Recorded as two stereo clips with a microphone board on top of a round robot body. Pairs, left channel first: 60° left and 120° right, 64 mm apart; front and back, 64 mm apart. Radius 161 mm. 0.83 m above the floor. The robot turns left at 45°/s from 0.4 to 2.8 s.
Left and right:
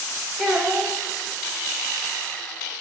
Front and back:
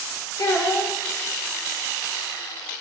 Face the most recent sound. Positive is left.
turn(degrees=-145)